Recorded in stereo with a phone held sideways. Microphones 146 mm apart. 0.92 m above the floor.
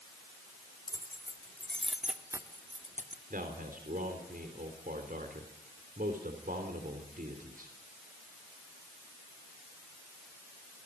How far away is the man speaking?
About 3 m.